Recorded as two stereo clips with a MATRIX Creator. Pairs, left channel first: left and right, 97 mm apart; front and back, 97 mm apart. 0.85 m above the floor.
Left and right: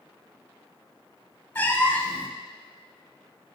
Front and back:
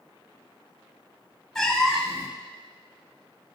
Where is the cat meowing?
75° left, 0.7 m.